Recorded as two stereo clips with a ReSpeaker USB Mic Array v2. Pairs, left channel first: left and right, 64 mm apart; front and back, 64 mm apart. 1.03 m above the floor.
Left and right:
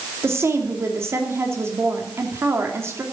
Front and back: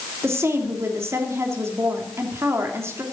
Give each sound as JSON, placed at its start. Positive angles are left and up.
{"t": 0.2, "sound": "a woman speaking", "azimuth_deg": -135, "distance_m": 2.5}